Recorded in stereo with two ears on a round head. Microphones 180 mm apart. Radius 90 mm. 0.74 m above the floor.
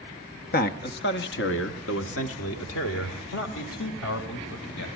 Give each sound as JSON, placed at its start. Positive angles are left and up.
{"t": 0.5, "sound": "a man speaking", "side_deg": 45, "distance_m": 0.9}